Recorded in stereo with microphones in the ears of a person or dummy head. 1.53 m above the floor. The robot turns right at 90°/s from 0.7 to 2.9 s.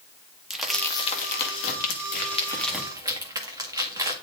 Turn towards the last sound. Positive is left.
turn(degrees=-15)  # may be behind; listen again after turning